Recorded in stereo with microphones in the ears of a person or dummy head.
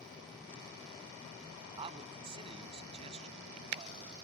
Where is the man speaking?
25° right (ahead or behind); by 4.1 s 35° right (ahead or behind).